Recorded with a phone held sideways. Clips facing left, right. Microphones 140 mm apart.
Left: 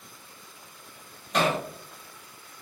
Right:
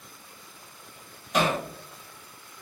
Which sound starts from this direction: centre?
Hammering, at 1.3 s.